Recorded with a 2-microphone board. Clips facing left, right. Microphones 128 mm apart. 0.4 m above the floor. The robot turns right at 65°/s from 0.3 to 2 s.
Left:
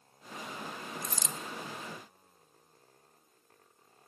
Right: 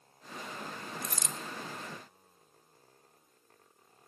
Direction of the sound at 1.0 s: 70° right (ahead or behind).